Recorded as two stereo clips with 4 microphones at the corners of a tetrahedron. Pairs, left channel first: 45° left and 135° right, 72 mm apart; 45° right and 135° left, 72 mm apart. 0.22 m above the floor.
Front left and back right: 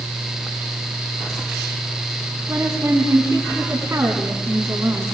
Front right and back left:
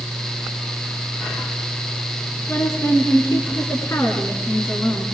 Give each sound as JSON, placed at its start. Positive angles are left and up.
{"t": 2.5, "sound": "a woman speaking", "azimuth_deg": -85, "distance_m": 2.5}